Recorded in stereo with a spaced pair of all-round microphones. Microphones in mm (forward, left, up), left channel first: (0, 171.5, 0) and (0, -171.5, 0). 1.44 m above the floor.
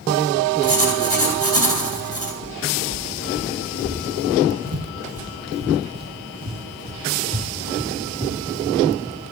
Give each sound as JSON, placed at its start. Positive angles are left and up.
{"t": 0.6, "sound": "writing", "side_deg": -75, "distance_m": 3.5}
{"t": 2.4, "sound": "footsteps", "side_deg": -65, "distance_m": 3.0}